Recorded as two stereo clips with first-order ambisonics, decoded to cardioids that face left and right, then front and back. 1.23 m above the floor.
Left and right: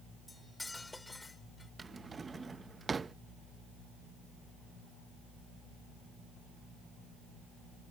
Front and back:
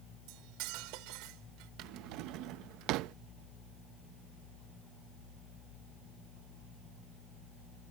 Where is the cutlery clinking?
170° left.